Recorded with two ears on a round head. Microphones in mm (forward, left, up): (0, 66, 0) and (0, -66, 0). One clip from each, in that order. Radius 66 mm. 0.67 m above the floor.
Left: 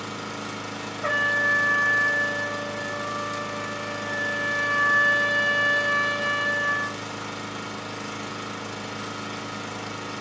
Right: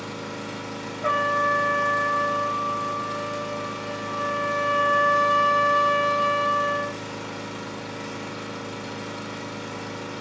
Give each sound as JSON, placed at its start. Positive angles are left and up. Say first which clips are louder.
{"t": 0.0, "sound": "an engine running", "louder": "left 1 dB", "side_deg": 25, "distance_m": 1.4}
{"t": 1.0, "sound": "a trumpet", "louder": "even", "side_deg": 20, "distance_m": 1.3}